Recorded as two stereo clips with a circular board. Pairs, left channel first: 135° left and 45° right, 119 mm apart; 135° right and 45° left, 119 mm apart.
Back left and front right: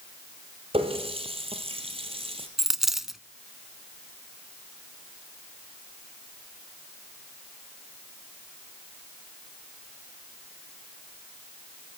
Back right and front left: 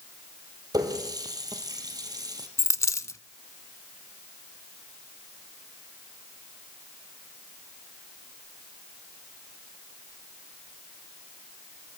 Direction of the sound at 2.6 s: 130° right.